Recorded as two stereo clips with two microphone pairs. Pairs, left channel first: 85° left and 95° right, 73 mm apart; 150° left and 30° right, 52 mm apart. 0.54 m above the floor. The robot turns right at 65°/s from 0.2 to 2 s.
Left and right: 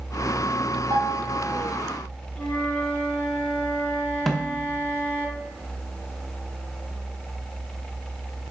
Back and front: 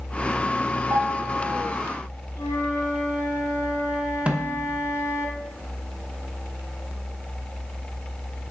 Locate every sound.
0.9 s a piano: 55° right, 3.5 m; by 1.8 s straight ahead, 3.5 m
2.4 s a flute: 165° left, 2.5 m
4.3 s a snare drum: straight ahead, 0.8 m